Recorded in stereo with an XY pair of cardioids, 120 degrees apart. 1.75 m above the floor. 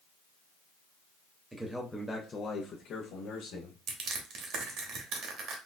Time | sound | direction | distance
1.5 | a man speaking | 20° right | 0.7 m
3.9 | crushing | 65° right | 0.8 m